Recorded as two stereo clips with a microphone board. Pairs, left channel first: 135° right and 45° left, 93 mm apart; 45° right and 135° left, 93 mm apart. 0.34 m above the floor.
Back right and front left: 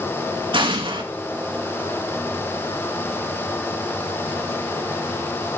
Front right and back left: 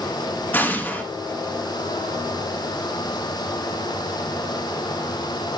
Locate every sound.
0.5 s an explosion: 25° left, 2.5 m